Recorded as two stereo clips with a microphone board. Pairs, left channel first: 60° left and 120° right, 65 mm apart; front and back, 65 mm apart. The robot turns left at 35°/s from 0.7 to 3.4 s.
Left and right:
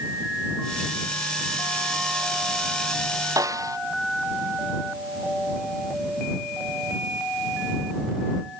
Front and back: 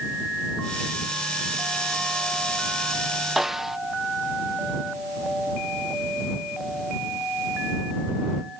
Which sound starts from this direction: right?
A snare drum, at 3.4 s.